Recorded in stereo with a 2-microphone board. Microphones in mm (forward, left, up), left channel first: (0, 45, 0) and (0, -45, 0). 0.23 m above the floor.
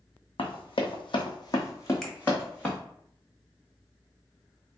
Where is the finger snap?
5° left (ahead or behind), 0.8 m.